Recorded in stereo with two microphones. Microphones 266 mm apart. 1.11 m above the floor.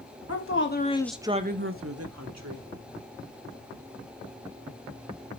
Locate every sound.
0.3 s a woman speaking: 55° left (ahead or behind), 1.4 m; by 2.7 s 70° right (ahead or behind), 2.5 m